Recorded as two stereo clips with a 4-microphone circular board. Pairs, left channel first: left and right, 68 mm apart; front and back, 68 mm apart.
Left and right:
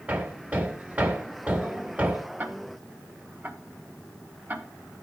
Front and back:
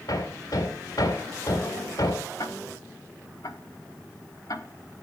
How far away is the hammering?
About 2.5 m.